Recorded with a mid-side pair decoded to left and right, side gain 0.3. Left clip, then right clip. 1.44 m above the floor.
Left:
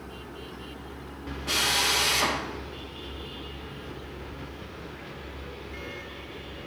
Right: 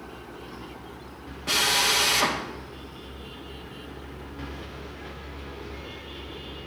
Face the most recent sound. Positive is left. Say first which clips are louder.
# right 2 dB
turn(degrees=-35)